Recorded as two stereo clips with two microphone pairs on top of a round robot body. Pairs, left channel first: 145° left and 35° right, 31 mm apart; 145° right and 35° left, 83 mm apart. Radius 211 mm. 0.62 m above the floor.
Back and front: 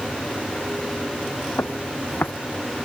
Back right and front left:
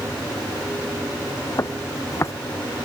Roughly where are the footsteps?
Behind.